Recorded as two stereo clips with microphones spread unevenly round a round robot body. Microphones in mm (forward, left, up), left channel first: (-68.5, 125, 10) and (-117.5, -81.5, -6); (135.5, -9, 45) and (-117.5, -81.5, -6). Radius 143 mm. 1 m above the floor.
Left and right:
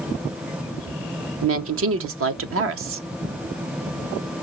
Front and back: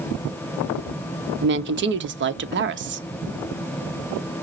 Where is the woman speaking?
120° right, 0.9 m.